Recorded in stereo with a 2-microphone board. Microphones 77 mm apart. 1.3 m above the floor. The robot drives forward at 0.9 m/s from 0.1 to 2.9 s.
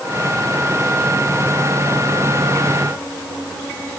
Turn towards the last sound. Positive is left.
No sound to turn to.